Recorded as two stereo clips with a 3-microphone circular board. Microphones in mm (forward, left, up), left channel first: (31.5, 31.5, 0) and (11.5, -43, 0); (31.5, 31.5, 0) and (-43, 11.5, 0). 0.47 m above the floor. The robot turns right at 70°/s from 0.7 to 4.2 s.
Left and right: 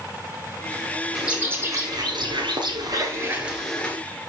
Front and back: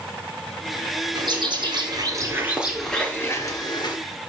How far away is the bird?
About 2 m.